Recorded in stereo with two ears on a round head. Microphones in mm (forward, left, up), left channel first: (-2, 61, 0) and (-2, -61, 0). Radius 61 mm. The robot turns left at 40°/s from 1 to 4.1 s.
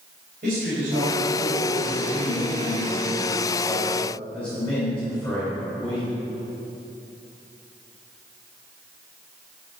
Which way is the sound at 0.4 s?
70° right.